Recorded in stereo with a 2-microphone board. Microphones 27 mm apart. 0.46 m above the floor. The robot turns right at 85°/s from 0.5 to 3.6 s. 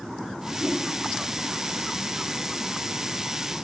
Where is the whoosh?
30° right (ahead or behind), 3.5 m; by 0.8 s 50° right (ahead or behind), 3.5 m.